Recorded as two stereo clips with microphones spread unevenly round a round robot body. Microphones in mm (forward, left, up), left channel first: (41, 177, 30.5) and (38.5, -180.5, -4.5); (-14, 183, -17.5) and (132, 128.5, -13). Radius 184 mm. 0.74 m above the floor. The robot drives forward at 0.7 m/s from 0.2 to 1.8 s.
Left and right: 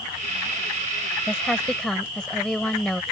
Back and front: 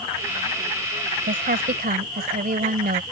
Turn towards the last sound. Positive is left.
turn(degrees=0)